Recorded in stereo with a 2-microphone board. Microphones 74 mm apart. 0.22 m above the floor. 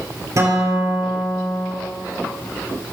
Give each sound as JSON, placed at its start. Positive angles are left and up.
{"t": 0.4, "sound": "a guitar", "side_deg": -40, "distance_m": 6.0}